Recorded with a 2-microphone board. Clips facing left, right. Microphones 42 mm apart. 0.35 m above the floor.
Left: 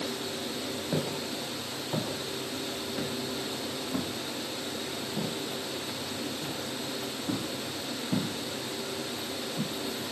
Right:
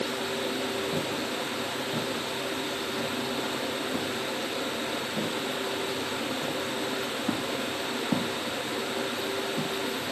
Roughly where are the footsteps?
Centre.